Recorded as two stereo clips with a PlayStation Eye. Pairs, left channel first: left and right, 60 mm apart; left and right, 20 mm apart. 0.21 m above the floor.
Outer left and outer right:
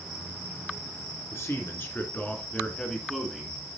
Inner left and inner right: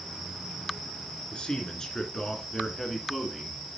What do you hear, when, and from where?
1.3 s a man speaking: 50° left (ahead or behind), 3 m; by 3.6 s 5° right (ahead or behind), 2.5 m